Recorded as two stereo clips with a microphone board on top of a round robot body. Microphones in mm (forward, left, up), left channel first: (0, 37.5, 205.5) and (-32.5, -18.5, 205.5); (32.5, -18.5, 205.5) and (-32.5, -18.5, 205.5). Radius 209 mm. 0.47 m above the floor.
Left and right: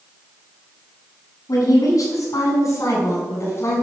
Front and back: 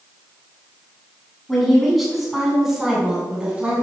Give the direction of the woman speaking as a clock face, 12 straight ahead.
9 o'clock.